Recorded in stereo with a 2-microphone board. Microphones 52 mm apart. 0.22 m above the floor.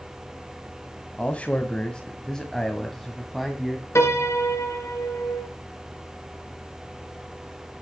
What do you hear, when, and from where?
1.2 s a man speaking: 30° left (ahead or behind), 1.6 m; by 3.9 s 5° right (ahead or behind), 1.9 m
4.0 s a piano: 65° left (ahead or behind), 3 m